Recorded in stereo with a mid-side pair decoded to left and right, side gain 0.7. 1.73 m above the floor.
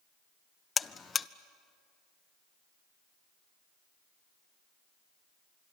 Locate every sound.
0.8 s a buzzer: 25° left, 0.6 m